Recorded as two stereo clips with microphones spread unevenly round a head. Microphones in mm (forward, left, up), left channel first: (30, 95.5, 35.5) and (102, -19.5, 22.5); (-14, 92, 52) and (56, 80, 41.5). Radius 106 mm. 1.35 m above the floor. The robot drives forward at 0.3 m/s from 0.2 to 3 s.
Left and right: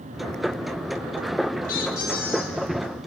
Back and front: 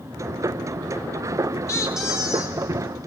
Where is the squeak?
125° left, 1.0 m; by 2.6 s 135° left, 1.2 m.